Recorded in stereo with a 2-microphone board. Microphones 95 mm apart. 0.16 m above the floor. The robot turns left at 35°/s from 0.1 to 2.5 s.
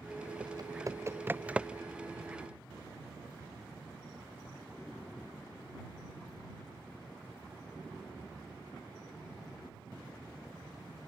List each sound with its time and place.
0.4 s typing on a keyboard: 55° right (ahead or behind); by 1.8 s 5° right (ahead or behind)